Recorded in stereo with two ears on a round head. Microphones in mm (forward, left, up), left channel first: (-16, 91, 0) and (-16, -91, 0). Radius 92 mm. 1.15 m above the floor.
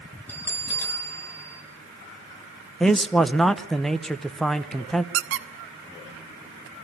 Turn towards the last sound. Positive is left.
turn(degrees=-70)  # may be behind; listen again after turning